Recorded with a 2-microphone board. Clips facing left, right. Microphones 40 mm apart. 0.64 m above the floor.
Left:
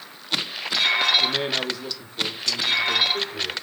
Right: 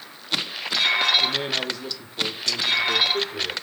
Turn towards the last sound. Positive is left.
turn(degrees=-30)  # may be behind; listen again after turning